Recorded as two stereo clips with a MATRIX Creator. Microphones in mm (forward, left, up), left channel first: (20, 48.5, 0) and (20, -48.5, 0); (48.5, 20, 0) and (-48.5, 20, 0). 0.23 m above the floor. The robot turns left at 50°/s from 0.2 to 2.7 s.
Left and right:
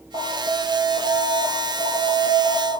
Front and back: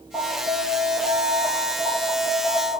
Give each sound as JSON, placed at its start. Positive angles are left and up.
{"t": 0.1, "sound": "an alarm", "azimuth_deg": -70, "distance_m": 2.5}